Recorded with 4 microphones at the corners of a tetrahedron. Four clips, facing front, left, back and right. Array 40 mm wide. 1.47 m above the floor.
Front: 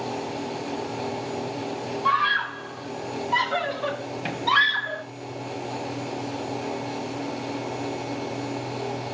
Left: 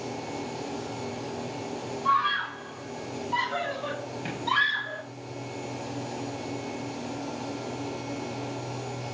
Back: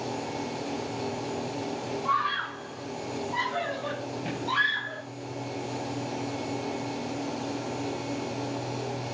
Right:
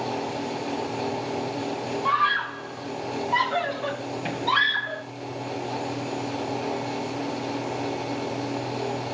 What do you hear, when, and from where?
2.0 s a scream: 15° right, 8 m; by 5.0 s straight ahead, 5 m